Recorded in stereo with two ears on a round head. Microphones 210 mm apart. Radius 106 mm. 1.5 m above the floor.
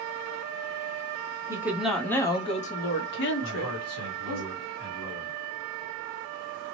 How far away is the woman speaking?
About 0.9 m.